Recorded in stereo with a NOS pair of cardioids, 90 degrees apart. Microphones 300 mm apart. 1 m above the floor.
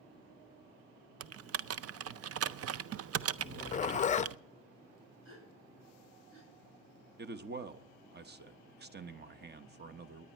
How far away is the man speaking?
About 0.9 m.